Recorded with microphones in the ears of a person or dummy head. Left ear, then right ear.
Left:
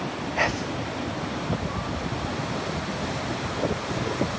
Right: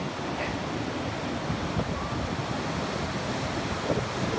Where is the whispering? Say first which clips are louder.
Left 10 dB; 55° left (ahead or behind), 0.5 m.